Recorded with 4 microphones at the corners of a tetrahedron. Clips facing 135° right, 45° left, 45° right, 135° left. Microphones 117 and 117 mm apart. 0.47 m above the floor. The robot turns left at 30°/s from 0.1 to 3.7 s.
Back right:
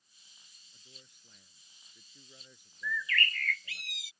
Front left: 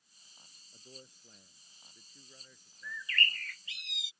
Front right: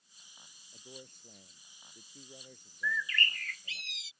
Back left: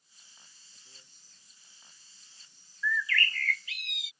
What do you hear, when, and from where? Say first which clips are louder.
0.7 s a man speaking: front left 8 dB, front right 19 dB; straight ahead; by 3.8 s 90° right
2.8 s a bird: back right 4 dB, back left 4 dB; 15° left; by 4.1 s 10° right